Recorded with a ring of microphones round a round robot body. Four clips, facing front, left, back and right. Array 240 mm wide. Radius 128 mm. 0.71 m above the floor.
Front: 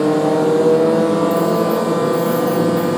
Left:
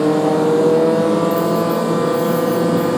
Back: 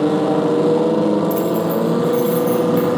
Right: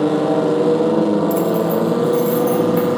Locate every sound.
1.3 s keys jangling: 140° right, 0.9 m; by 2.9 s 95° right, 1.6 m